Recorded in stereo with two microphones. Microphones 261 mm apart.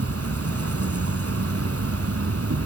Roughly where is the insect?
Right.